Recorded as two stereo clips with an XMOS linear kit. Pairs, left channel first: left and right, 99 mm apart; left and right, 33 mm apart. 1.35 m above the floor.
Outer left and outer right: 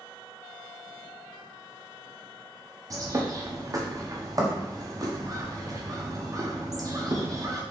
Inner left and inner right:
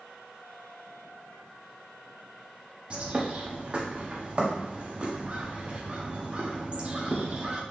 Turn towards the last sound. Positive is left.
turn(degrees=-35)  # may be behind; listen again after turning